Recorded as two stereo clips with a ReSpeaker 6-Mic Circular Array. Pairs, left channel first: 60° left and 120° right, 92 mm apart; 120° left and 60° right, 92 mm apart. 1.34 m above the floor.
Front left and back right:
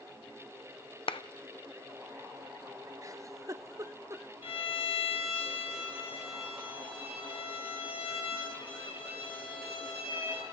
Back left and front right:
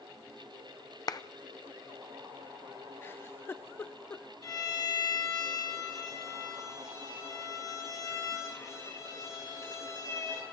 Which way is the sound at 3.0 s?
175° right.